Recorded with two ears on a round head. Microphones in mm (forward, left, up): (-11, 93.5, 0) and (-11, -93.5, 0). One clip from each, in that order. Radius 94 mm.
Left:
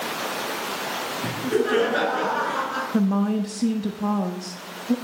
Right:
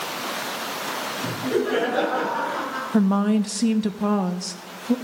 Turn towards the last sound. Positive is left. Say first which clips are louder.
# right 2 dB
turn(degrees=-25)  # may be behind; listen again after turning